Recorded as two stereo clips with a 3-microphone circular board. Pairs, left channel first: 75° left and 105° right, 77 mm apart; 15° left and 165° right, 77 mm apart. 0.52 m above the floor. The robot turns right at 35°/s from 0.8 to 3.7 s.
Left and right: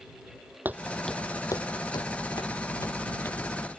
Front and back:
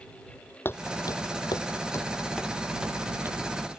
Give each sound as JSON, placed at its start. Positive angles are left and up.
{"t": 0.7, "sound": "footsteps", "azimuth_deg": -45}